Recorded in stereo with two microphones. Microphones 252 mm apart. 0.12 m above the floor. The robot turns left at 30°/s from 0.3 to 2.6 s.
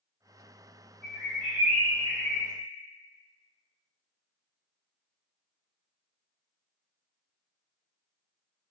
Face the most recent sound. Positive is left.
turn(degrees=-75)